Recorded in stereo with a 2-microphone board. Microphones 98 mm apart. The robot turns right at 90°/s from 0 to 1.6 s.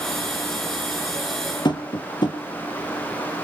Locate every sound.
1.6 s tapping: 50° left (ahead or behind), 2.0 m